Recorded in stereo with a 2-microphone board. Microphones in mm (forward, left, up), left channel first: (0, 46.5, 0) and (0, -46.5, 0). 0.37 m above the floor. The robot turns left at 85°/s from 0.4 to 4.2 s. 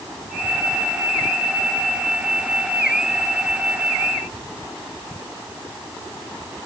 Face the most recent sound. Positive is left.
No sound to turn to.